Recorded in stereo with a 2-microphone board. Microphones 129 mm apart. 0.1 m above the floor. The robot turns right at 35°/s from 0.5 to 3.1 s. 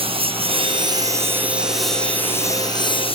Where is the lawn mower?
45° right (ahead or behind); by 3.1 s 45° left (ahead or behind).